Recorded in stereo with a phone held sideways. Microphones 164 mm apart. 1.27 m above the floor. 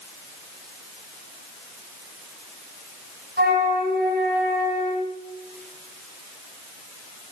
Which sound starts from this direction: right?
A flute, at 3.4 s.